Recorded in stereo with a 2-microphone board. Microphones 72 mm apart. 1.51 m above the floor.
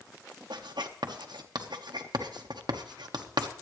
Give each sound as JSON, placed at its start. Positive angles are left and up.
{"t": 0.5, "sound": "writing", "side_deg": -80, "distance_m": 1.1}